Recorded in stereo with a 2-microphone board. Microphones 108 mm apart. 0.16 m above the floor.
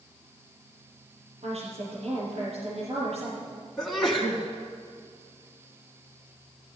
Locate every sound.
1.4 s a woman speaking: 60° right (ahead or behind), 5 m
3.8 s a sneeze: centre (ahead or behind), 1.4 m